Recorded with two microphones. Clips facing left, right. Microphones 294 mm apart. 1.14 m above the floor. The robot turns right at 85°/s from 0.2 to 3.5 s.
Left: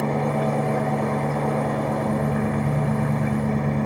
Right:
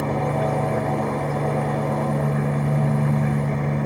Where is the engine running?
135° right, 3 m; by 3.9 s 145° left, 3 m.